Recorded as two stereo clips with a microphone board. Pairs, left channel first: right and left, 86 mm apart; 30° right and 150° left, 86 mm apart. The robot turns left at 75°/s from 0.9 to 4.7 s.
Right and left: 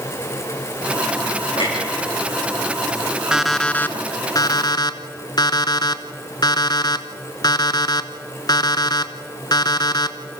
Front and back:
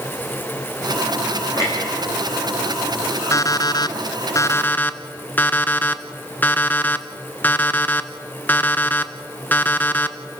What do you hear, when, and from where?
1.6 s a clunk: 80° right, 6.5 m; by 4.3 s 75° left, 6.5 m
3.3 s an alarm clock: 10° left, 0.8 m; by 10.2 s 95° right, 0.8 m